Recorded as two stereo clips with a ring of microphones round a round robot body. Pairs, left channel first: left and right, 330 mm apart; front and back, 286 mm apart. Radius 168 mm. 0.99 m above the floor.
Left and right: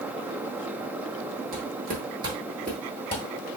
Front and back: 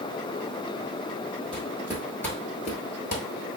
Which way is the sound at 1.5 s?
120° right.